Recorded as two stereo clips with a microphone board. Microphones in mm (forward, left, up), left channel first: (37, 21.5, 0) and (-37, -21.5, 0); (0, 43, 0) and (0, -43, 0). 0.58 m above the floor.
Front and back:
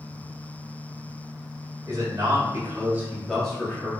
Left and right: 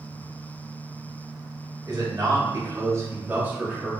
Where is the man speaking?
120° right, 1.3 m; by 3.9 s 5° right, 0.8 m.